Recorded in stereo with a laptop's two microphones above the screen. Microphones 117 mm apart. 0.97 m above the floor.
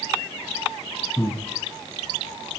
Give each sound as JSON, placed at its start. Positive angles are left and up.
{"t": 1.2, "sound": "breathing", "side_deg": 20, "distance_m": 4.0}